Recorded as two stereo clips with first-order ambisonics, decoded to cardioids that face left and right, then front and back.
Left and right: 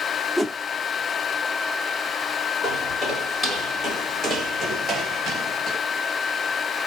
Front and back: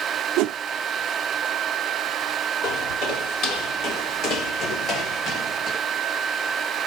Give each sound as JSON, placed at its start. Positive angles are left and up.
{"t": 0.4, "sound": "a whoosh", "azimuth_deg": 170, "distance_m": 0.5}
{"t": 2.6, "sound": "footsteps", "azimuth_deg": 15, "distance_m": 3.5}